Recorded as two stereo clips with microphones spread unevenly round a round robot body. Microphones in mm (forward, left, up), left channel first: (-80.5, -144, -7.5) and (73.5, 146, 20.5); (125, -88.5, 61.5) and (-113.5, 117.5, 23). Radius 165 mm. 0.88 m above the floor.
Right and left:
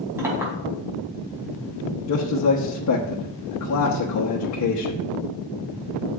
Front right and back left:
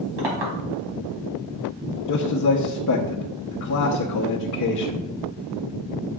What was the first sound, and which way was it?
A clink, 145° left.